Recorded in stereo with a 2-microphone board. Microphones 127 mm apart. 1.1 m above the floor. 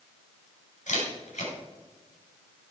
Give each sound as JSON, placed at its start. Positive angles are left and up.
{"t": 0.9, "sound": "a camera shutter", "side_deg": 75, "distance_m": 3.5}